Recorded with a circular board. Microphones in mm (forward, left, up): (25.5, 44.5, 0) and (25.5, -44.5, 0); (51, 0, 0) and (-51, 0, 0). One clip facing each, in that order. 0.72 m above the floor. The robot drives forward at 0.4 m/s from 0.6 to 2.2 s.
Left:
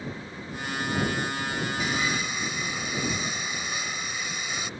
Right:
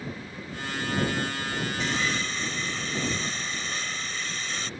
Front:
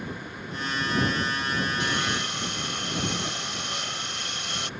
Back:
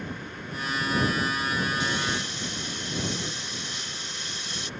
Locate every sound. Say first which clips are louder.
1.8 s sawing: even, front 1 dB; 10° left